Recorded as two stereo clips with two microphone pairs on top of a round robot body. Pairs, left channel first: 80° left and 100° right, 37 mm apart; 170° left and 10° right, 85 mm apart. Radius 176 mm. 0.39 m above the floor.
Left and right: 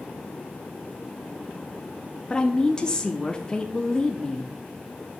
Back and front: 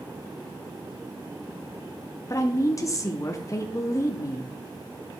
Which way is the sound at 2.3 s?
150° left.